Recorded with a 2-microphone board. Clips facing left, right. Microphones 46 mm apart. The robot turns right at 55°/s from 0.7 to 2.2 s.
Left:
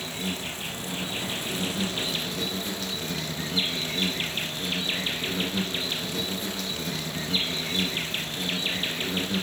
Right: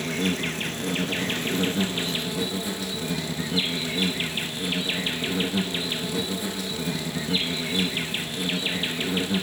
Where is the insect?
95° right, 1.1 m; by 9.4 s 10° right, 1.1 m.